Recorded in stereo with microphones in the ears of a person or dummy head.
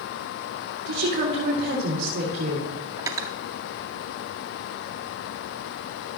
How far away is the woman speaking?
About 2.5 m.